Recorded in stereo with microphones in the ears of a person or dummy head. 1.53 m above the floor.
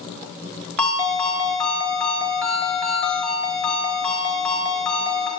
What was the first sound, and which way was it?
A ringtone, 5° left (ahead or behind).